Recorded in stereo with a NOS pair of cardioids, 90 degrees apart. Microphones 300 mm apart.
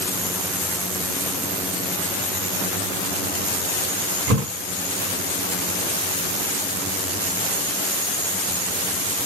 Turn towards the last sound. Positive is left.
turn(degrees=-60)